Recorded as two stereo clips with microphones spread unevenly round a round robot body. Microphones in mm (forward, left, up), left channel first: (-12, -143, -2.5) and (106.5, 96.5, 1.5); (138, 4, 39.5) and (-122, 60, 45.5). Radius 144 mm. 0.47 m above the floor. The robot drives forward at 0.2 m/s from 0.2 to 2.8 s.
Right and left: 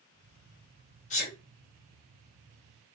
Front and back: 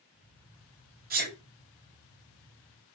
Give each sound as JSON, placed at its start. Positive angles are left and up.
{"t": 1.1, "sound": "a sneeze", "azimuth_deg": -160, "distance_m": 0.8}